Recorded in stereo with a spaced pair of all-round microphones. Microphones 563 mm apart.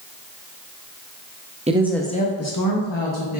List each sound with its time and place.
1.7 s a woman speaking: 15° right (ahead or behind), 0.6 m; by 3.4 s 60° left (ahead or behind), 0.9 m